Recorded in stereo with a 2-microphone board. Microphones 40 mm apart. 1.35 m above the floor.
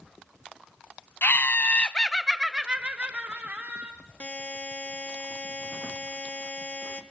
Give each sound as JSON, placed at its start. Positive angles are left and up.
{"t": 1.2, "sound": "laughter", "side_deg": 60, "distance_m": 0.7}
{"t": 4.2, "sound": "a buzzer", "side_deg": 40, "distance_m": 1.1}